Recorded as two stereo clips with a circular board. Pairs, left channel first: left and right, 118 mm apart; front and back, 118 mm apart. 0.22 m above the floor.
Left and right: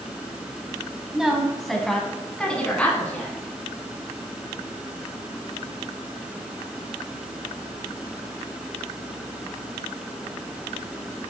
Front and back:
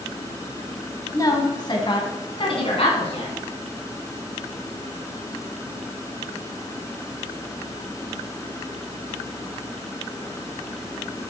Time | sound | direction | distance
1.1 | a woman speaking | 10° right | 1.6 m